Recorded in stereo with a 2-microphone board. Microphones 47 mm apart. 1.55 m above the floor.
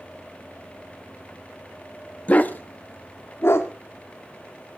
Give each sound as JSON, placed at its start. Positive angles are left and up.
{"t": 2.3, "sound": "a dog barking", "side_deg": 30, "distance_m": 1.0}